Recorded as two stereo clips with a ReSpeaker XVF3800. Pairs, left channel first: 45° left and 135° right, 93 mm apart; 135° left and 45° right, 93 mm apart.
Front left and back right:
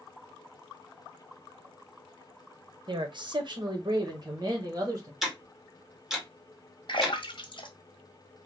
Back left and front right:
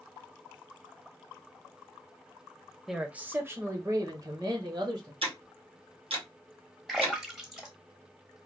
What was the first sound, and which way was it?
A man speaking, 130° right.